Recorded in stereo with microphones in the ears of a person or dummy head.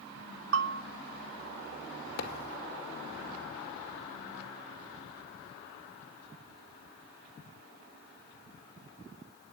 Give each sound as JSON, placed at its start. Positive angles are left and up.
{"t": 0.5, "sound": "a bell", "side_deg": -70, "distance_m": 2.0}
{"t": 2.2, "sound": "a thud", "side_deg": 60, "distance_m": 2.0}